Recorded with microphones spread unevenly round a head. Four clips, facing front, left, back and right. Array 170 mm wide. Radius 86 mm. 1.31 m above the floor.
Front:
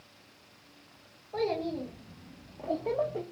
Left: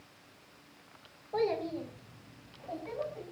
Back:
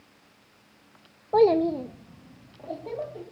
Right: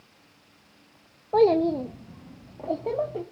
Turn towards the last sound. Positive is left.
turn(degrees=-70)